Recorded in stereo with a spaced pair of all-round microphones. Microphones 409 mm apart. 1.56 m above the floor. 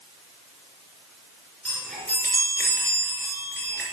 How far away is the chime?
About 3.5 m.